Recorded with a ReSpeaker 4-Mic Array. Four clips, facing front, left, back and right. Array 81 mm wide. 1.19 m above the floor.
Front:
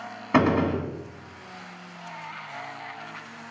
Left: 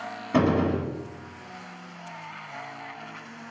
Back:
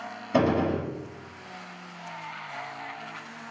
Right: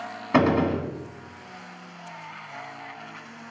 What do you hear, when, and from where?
0.3 s a gunshot: 35° right, 1.1 m